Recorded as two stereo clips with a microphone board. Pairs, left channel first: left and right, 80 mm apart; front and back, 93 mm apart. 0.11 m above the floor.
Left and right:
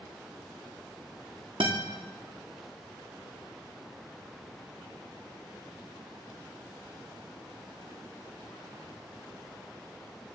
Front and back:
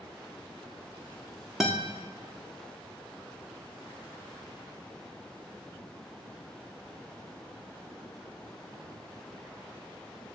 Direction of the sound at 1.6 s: 90° right.